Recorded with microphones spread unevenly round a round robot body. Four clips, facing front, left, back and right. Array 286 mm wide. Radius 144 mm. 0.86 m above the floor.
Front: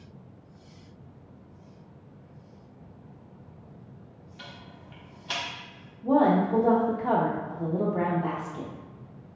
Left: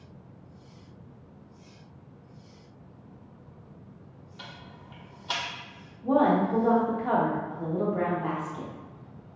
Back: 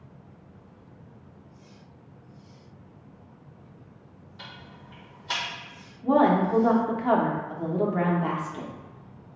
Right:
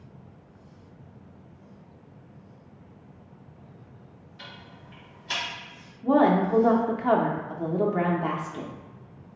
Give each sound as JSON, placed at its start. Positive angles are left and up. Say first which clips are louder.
{"t": 4.4, "sound": "ticking", "louder": "even, back 1 dB", "azimuth_deg": 105, "distance_m": 0.9}
{"t": 6.0, "sound": "a woman speaking", "louder": "right 2 dB, back 1 dB", "azimuth_deg": -75, "distance_m": 0.6}